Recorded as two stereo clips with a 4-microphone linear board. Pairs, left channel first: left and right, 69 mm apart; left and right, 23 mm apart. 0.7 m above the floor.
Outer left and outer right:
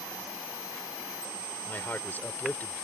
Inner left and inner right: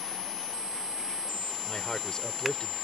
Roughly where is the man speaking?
Left.